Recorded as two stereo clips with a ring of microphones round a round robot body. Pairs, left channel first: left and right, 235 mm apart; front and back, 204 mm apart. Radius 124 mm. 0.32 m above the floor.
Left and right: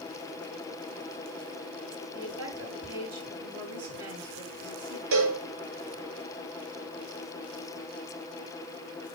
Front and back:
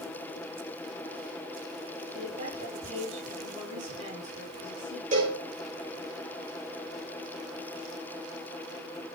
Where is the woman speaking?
120° right, 6.5 m.